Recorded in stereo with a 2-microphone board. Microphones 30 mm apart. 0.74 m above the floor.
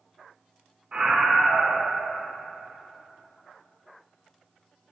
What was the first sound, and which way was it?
A scream, 30° right (ahead or behind).